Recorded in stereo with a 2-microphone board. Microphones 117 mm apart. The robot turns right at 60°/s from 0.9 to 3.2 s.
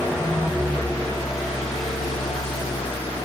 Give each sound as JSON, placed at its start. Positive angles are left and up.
{"t": 0.0, "sound": "an engine running", "azimuth_deg": -15, "distance_m": 7.0}